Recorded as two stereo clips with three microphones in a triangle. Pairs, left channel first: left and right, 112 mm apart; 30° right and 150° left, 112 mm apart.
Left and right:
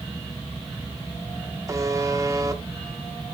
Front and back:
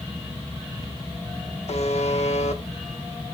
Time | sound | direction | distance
1.7 | a buzzer | 30° right | 0.9 m